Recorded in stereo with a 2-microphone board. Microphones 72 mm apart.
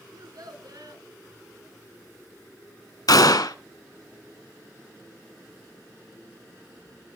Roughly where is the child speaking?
Right.